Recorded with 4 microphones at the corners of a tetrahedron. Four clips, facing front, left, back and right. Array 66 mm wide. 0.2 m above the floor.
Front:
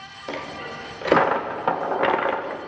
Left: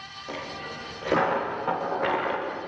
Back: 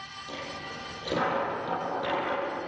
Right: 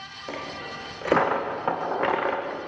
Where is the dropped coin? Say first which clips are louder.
Right 1 dB, front 7 dB; 15° right, 4 m.